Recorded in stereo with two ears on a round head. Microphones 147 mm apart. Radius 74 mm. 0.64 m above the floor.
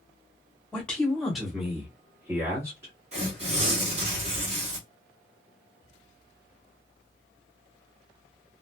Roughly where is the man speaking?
Centre.